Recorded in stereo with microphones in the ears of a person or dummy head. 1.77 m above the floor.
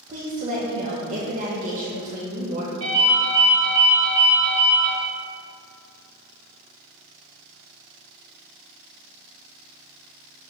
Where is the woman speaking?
40° right (ahead or behind), 0.6 m.